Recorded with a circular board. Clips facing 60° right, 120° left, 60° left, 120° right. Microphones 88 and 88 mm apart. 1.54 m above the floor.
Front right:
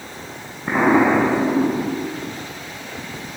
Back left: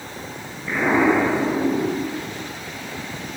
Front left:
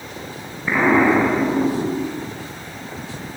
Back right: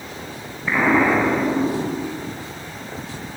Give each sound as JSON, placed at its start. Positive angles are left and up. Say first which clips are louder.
{"t": 0.7, "sound": "an explosion", "louder": "front right 3 dB, front left 2 dB", "azimuth_deg": -25, "distance_m": 7.0}